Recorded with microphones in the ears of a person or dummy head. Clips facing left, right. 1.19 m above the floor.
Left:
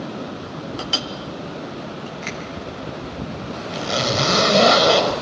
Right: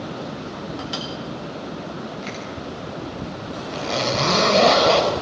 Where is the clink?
40° left (ahead or behind), 0.8 m.